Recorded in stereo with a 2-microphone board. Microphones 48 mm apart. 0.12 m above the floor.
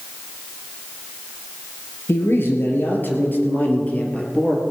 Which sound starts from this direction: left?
A man speaking, at 2.1 s.